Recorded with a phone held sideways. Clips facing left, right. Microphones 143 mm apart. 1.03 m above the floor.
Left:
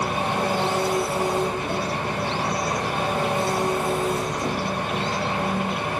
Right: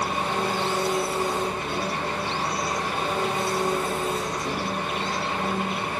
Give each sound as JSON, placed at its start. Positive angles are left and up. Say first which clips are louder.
{"t": 0.0, "sound": "an engine running", "louder": "left 2 dB", "side_deg": 65, "distance_m": 1.7}